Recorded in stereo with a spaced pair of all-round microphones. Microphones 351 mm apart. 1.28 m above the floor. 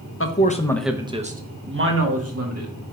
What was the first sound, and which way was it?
A man speaking, 40° left (ahead or behind).